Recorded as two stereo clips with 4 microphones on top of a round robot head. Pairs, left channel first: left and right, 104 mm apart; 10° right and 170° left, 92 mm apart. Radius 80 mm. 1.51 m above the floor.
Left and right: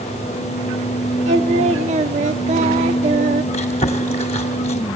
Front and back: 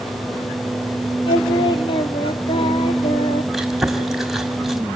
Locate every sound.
1.3 s singing: 60° right, 1.0 m
3.5 s chewing: 85° left, 1.9 m